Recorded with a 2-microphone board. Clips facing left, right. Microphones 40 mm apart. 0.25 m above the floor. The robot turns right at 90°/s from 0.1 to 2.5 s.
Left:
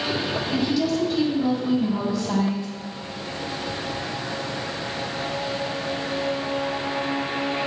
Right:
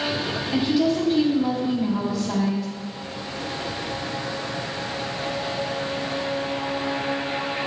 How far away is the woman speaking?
About 1.7 m.